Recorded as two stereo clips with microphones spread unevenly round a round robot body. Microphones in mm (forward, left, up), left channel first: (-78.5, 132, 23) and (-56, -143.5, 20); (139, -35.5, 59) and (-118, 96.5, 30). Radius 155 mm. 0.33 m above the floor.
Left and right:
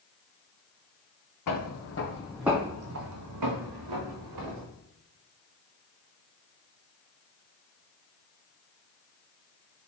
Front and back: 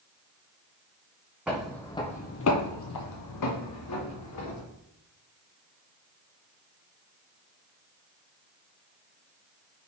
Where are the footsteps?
65° left, 0.9 m; by 4.7 s 70° right, 1.7 m.